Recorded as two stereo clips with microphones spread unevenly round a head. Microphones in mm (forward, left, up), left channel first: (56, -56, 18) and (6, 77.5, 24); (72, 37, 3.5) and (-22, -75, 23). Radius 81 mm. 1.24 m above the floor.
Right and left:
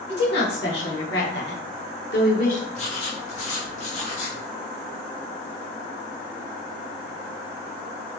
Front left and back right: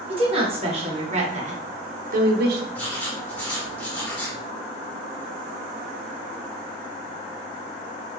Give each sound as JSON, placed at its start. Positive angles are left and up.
{"t": 0.1, "sound": "a woman speaking", "azimuth_deg": -75, "distance_m": 1.7}
{"t": 2.7, "sound": "writing", "azimuth_deg": -35, "distance_m": 1.4}